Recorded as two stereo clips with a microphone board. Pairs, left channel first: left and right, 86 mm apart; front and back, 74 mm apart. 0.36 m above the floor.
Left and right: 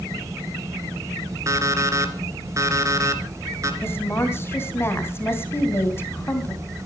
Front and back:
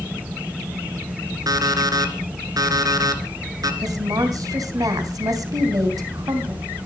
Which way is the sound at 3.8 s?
150° left.